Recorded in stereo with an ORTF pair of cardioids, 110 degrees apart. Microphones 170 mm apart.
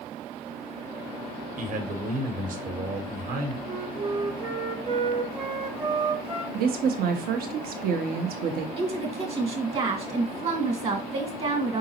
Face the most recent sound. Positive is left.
turn(degrees=-40)